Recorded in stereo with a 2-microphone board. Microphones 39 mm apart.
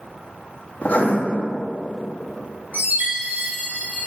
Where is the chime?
50° right (ahead or behind), 2 m.